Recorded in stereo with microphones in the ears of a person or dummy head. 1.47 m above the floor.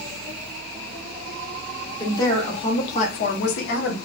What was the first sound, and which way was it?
A woman speaking, 10° left (ahead or behind).